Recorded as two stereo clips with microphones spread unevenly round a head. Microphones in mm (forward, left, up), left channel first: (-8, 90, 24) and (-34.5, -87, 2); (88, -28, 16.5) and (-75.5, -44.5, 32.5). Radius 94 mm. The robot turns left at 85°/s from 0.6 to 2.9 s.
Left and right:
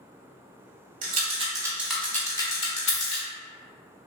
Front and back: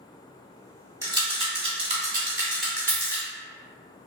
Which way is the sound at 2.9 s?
110° left.